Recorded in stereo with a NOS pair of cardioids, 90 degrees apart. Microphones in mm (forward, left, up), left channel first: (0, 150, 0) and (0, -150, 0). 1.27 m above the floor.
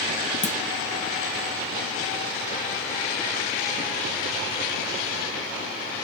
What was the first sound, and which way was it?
A clunk, 25° left.